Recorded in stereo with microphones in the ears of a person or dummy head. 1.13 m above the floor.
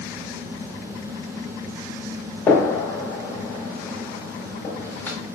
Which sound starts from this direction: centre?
A gunshot, at 2.5 s.